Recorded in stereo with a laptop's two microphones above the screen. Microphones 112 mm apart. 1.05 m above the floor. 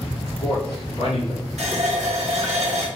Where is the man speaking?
65° left (ahead or behind), 2 m.